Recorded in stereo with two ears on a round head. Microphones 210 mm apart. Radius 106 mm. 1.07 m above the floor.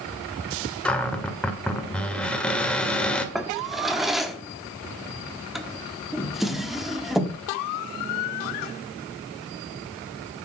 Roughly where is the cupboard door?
Centre.